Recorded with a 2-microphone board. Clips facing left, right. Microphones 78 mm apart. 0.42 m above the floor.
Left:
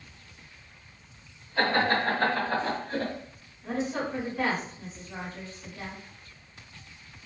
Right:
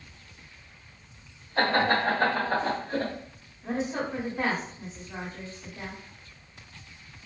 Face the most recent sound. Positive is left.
turn(degrees=-30)  # may be behind; listen again after turning